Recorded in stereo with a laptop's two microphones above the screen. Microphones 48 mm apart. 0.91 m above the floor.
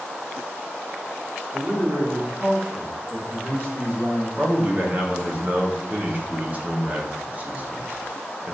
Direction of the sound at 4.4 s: 35° right (ahead or behind).